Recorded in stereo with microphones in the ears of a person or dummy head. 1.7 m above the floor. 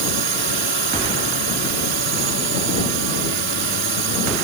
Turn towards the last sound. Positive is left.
turn(degrees=-50)  # may be behind; listen again after turning